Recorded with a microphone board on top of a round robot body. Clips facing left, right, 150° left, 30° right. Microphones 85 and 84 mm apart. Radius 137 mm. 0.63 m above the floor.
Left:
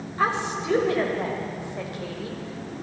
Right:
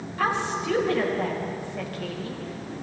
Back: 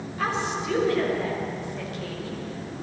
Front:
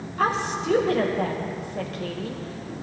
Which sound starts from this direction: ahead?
A woman speaking, at 0.2 s.